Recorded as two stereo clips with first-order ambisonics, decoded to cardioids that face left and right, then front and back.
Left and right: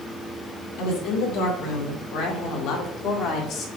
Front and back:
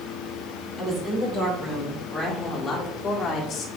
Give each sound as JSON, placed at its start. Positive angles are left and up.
{"t": 0.8, "sound": "a woman speaking", "azimuth_deg": 100, "distance_m": 3.0}